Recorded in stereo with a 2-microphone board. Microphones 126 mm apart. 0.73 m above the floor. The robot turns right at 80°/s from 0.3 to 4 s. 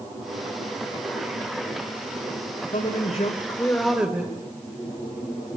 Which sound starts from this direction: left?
A man speaking, at 2.7 s.